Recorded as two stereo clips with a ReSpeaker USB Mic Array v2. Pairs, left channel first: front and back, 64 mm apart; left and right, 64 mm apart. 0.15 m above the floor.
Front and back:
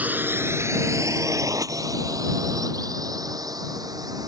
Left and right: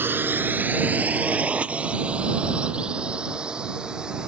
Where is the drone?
125° right; by 4.3 s 165° right.